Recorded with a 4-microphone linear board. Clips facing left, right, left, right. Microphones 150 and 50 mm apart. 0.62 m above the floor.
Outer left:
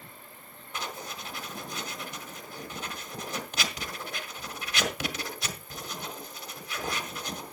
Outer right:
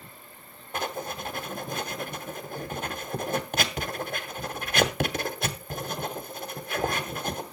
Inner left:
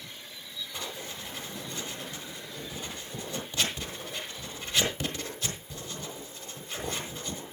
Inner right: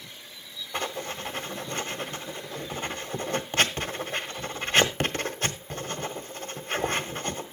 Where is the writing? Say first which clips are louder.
Outer right 7 dB, inner right 10 dB; 55° right (ahead or behind), 1.6 m.